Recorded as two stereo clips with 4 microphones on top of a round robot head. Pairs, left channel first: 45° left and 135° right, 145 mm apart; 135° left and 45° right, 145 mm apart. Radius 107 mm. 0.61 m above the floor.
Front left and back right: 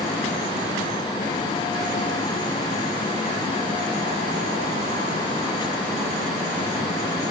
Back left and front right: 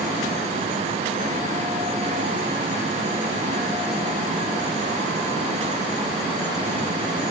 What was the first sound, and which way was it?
Only background noise.